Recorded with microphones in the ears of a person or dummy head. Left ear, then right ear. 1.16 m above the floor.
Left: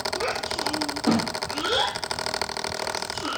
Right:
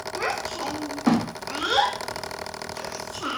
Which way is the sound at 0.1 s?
70° right (ahead or behind).